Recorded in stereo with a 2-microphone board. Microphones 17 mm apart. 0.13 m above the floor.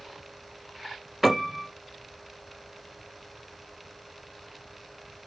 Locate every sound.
1.2 s a piano: 15° right (ahead or behind), 2 m